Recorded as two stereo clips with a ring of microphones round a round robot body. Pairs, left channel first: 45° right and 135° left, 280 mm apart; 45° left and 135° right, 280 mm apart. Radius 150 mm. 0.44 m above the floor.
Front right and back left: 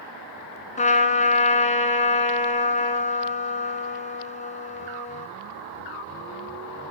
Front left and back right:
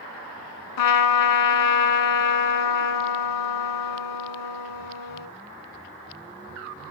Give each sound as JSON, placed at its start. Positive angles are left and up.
{"t": 0.8, "sound": "a trumpet", "azimuth_deg": 20, "distance_m": 1.3}